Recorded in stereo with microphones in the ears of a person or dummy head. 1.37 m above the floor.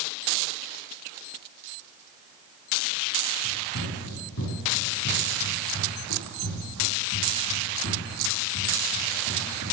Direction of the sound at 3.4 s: 65° left (ahead or behind).